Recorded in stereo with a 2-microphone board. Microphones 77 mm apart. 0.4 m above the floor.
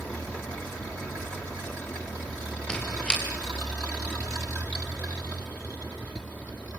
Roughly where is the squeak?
Centre.